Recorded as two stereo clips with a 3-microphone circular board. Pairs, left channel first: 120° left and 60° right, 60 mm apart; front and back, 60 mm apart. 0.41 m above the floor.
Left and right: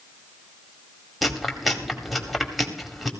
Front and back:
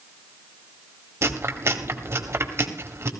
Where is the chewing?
150° right, 2 m.